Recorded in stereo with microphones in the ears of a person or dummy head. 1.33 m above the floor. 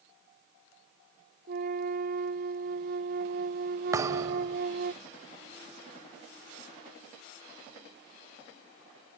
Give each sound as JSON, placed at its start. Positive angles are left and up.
{"t": 1.5, "sound": "a flute", "side_deg": -60}
{"t": 3.9, "sound": "a thud", "side_deg": -10}